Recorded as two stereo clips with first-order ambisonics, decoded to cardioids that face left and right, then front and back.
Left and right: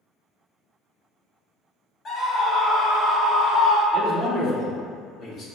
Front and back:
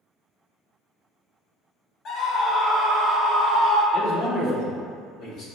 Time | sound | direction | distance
2.0 | a scream | 40° left | 0.8 m
3.9 | a man speaking | 35° left | 1.6 m